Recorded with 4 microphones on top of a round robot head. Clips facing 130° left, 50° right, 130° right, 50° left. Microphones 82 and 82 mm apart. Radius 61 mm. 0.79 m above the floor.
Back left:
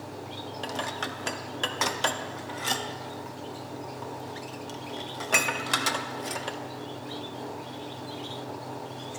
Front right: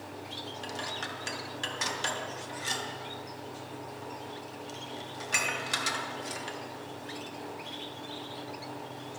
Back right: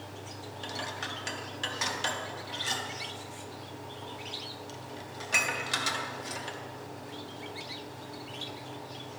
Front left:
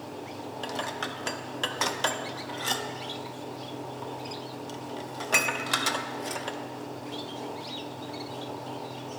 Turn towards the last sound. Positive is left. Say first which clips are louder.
# back left 6 dB, front left 4 dB
turn(degrees=90)